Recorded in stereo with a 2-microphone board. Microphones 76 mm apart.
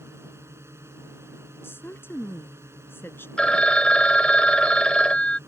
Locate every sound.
0.0 s a drone: 35° right (ahead or behind)
1.6 s a woman speaking: 30° left (ahead or behind)
3.4 s a phone ringing: 15° left (ahead or behind)